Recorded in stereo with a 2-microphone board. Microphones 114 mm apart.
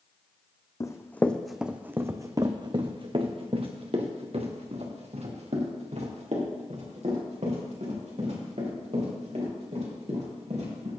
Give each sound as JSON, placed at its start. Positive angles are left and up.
{"t": 0.8, "sound": "running footsteps", "side_deg": 30, "distance_m": 0.8}